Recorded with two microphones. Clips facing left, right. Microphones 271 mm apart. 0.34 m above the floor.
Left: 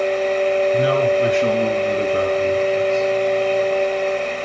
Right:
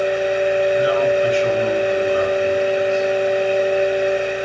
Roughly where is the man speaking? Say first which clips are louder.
Even; left.